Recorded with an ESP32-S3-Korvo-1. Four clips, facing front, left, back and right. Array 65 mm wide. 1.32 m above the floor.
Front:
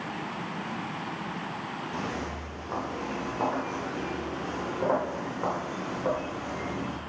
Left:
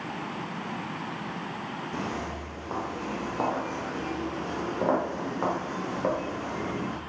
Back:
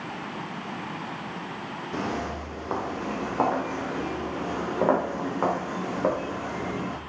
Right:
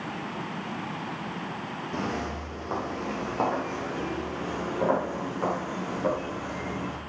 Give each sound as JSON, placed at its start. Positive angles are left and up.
{"t": 1.9, "sound": "footsteps", "azimuth_deg": -160, "distance_m": 3.0}